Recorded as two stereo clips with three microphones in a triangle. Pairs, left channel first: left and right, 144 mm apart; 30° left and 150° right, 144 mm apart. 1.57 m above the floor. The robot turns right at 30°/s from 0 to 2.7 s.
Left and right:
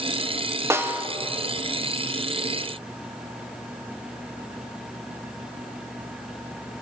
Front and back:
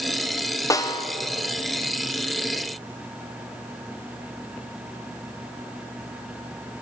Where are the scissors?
I don't hear scissors.